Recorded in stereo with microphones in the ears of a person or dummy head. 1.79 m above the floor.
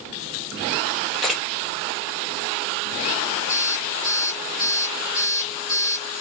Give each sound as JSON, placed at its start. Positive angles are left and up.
{"t": 1.2, "sound": "a camera shutter", "side_deg": 0, "distance_m": 0.8}
{"t": 3.5, "sound": "an alarm clock", "side_deg": -50, "distance_m": 1.5}